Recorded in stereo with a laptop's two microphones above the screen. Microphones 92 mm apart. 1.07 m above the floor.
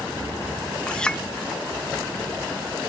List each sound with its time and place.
0.9 s a clink: 10° left (ahead or behind)